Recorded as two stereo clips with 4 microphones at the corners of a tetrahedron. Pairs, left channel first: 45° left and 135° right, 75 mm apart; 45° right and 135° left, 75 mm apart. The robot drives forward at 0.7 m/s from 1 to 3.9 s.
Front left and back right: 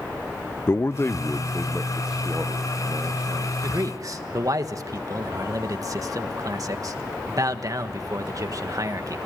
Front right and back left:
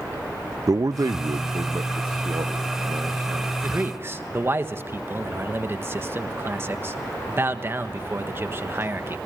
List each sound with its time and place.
0.7 s a man speaking: 100° left, 0.6 m; by 3.5 s 165° left, 1.9 m
3.6 s a man speaking: 165° right, 1.2 m; by 9.2 s 170° right, 1.4 m